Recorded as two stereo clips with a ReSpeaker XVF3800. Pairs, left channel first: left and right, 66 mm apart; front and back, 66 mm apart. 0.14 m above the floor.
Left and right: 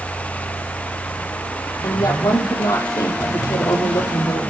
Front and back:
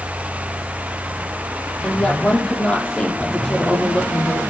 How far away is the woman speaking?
About 4.5 m.